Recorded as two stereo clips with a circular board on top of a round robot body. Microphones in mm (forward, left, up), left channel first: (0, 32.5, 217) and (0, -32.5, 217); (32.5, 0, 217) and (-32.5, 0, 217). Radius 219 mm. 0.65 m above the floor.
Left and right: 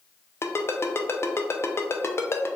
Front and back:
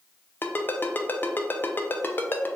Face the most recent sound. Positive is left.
turn(degrees=50)